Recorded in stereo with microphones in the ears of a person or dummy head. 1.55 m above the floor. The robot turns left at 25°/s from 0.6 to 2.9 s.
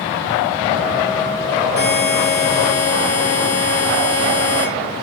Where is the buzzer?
55° left (ahead or behind), 3 m; by 4.7 s 75° left (ahead or behind), 3 m.